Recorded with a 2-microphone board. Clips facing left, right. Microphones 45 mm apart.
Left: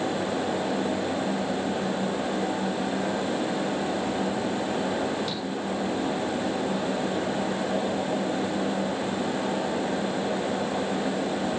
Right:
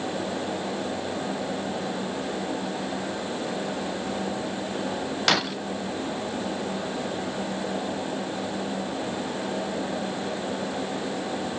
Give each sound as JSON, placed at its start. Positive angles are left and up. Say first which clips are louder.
{"t": 5.3, "sound": "breaking glass", "louder": "right 7 dB", "side_deg": -70}